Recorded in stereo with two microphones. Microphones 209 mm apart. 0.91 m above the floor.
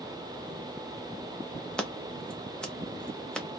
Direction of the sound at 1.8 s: 5° left (ahead or behind).